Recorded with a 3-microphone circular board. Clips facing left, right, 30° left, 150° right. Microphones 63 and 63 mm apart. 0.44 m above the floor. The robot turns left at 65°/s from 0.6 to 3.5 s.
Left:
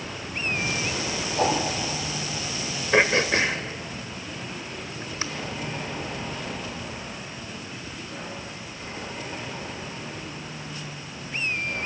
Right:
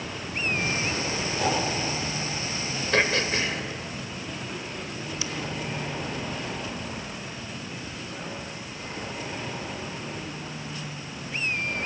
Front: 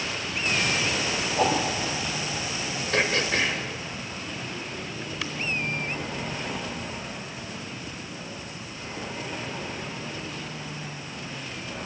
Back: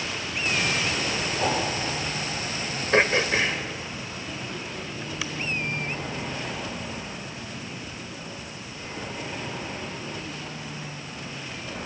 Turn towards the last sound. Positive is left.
turn(degrees=125)